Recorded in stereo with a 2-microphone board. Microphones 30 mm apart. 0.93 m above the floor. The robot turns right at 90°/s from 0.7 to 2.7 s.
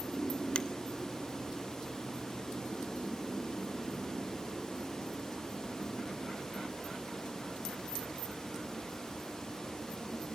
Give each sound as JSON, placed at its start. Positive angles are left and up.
{"t": 0.6, "sound": "a finger snap", "side_deg": 35, "distance_m": 1.3}